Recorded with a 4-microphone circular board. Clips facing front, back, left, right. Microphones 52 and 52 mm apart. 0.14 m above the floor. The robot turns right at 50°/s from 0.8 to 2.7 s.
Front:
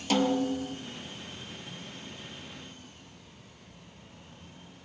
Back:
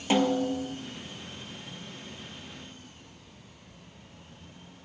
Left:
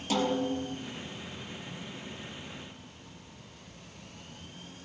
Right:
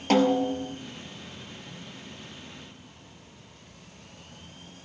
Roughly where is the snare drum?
Behind right.